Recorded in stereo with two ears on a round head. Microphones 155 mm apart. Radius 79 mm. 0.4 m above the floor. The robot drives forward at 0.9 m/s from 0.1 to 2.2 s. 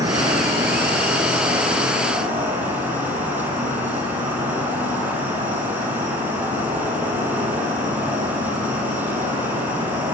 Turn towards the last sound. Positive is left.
turn(degrees=-10)  # may be behind; listen again after turning